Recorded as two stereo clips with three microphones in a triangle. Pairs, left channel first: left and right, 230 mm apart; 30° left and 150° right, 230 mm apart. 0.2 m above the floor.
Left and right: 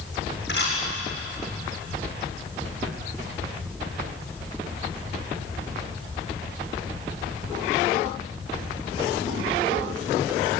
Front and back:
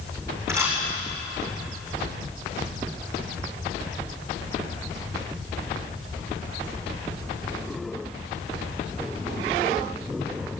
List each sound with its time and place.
0.5 s a camera shutter: 130° left, 8.5 m